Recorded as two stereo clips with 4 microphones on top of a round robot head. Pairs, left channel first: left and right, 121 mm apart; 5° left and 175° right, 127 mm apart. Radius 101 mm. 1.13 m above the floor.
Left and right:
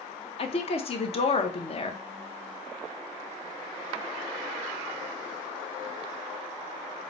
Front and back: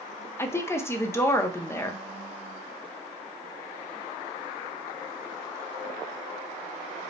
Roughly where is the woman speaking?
Left.